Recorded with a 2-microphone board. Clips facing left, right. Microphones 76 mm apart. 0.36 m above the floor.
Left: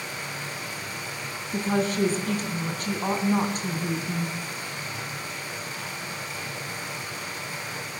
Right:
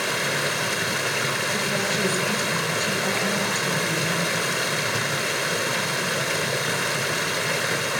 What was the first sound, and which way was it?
Running water, 80° right.